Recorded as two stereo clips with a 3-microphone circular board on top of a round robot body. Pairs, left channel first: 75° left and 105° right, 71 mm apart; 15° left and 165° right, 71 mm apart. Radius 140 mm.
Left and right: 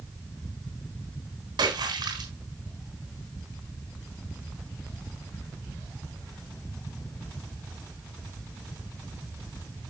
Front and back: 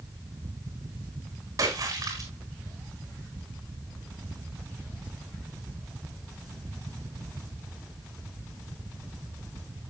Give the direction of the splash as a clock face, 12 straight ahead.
4 o'clock.